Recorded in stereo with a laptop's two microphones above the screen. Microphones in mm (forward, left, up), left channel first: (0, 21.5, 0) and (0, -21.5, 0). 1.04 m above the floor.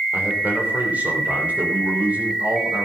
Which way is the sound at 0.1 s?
40° right (ahead or behind).